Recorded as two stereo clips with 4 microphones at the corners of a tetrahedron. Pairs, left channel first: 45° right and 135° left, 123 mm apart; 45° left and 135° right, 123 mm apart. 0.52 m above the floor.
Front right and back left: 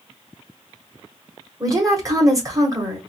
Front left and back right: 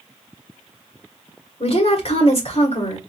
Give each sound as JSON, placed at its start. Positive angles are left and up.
{"t": 1.6, "sound": "a woman speaking", "azimuth_deg": 75, "distance_m": 1.9}